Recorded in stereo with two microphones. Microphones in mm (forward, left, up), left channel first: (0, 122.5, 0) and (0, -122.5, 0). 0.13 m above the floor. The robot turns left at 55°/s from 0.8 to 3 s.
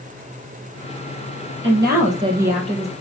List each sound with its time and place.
1.6 s a woman speaking: 125° right, 3.5 m; by 2.9 s 165° left, 3.5 m